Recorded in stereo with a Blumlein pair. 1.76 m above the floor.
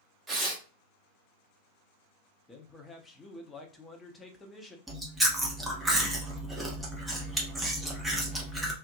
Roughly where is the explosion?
No explosion in this recording.